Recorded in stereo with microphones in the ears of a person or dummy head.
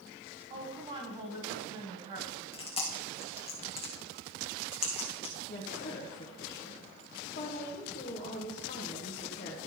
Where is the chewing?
30° left (ahead or behind), 1.6 m.